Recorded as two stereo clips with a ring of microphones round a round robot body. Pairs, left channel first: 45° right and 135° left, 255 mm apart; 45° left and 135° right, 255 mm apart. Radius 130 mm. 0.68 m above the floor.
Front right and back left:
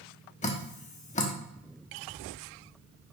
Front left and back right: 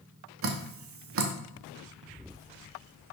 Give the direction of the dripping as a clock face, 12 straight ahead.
4 o'clock.